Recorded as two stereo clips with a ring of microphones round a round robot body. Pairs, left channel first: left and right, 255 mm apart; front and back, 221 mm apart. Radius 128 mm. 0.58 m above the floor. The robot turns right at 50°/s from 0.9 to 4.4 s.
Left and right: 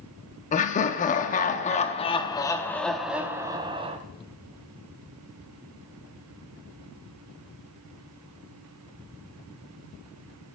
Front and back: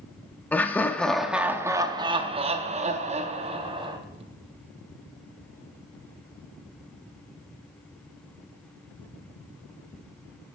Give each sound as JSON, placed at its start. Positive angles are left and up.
{"t": 0.5, "sound": "laughter", "azimuth_deg": 75, "distance_m": 0.6}